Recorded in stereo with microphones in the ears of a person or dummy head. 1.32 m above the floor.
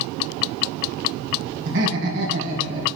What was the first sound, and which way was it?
Laughter, 65° right (ahead or behind).